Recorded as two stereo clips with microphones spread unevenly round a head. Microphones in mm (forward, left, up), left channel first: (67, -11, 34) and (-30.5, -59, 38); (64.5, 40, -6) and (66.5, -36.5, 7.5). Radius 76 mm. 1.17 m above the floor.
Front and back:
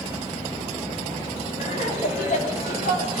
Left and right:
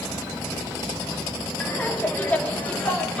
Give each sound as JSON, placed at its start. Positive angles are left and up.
{"t": 1.6, "sound": "laughter", "azimuth_deg": 25, "distance_m": 2.5}